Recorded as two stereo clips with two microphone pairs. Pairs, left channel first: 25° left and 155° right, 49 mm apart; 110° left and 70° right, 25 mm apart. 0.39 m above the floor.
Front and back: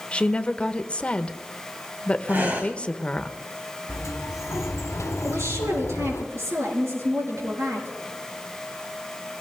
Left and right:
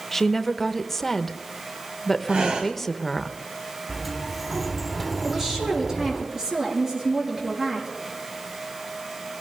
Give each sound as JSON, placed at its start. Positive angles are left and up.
{"t": 0.1, "sound": "a woman speaking", "azimuth_deg": 50, "distance_m": 0.9}
{"t": 2.3, "sound": "breathing", "azimuth_deg": -110, "distance_m": 2.0}
{"t": 3.9, "sound": "a sliding door", "azimuth_deg": 15, "distance_m": 1.2}
{"t": 5.2, "sound": "a woman speaking", "azimuth_deg": -140, "distance_m": 6.0}